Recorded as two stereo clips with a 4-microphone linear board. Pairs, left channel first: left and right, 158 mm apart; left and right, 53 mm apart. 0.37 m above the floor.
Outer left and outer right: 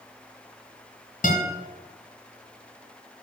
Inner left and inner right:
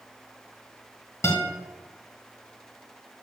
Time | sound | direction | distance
1.2 | a guitar | 60° left (ahead or behind) | 2.0 m